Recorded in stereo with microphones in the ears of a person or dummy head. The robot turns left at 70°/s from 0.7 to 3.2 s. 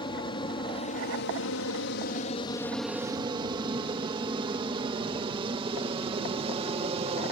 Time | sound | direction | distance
0.0 | an aircraft | 25° left (ahead or behind) | ?